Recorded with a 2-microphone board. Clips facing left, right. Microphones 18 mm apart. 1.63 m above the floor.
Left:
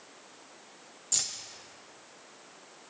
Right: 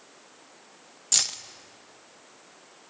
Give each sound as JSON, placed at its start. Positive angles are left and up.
{"t": 1.1, "sound": "keys jangling", "side_deg": -35, "distance_m": 0.6}